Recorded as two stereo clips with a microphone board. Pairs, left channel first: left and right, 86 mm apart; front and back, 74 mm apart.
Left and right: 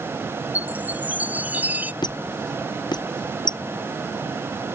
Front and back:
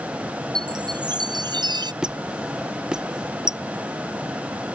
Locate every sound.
0.6 s a chime: 160° right
2.0 s a squeak: 100° left